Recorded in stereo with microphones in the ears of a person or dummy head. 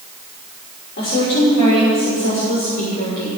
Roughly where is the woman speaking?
Left.